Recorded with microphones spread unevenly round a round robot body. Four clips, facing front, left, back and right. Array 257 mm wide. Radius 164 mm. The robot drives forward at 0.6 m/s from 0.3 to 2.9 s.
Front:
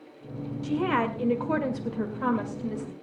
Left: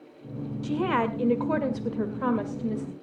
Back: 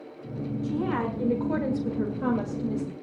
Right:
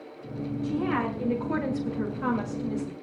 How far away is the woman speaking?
About 1.8 m.